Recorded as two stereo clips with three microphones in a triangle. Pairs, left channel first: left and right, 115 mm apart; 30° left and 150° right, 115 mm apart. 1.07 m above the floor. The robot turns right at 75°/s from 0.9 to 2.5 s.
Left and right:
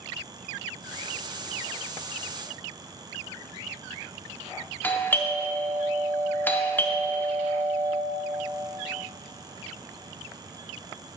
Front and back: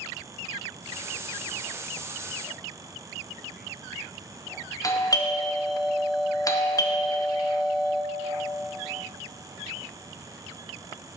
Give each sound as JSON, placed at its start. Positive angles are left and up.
{"t": 4.8, "sound": "a doorbell", "azimuth_deg": 35, "distance_m": 0.7}